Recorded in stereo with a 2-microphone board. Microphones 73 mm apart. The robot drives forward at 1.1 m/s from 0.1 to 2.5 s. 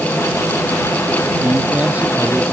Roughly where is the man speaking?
Right.